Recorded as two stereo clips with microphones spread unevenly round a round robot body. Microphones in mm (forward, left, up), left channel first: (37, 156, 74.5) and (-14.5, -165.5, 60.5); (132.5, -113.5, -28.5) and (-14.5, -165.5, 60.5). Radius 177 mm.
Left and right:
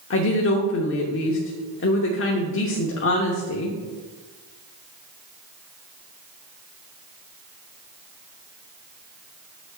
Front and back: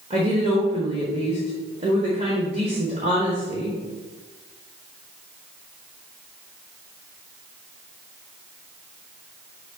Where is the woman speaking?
120° left, 1.0 m.